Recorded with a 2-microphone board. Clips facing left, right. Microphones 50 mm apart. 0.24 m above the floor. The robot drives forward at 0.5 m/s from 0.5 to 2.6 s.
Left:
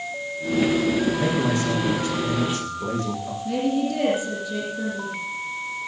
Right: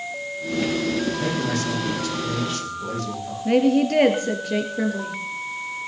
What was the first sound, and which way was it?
A man speaking, 25° left (ahead or behind).